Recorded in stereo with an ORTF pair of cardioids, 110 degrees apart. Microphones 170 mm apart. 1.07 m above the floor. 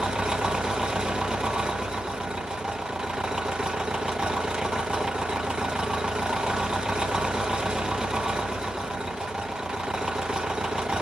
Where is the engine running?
5° right, 0.7 m.